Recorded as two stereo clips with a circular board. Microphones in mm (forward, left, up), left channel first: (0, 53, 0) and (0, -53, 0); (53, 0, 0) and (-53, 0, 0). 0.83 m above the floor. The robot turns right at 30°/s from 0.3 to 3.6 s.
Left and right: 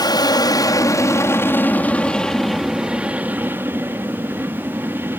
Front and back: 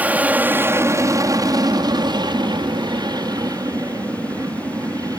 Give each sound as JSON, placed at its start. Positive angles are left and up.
{"t": 0.0, "sound": "an aircraft", "azimuth_deg": 110}